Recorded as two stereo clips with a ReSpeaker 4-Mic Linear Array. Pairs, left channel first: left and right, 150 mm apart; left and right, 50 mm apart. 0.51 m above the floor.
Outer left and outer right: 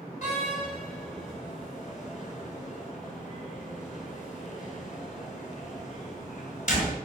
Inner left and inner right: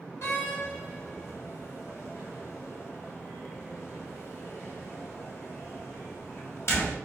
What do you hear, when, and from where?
0.2 s a door slam: 55° left (ahead or behind), 2.5 m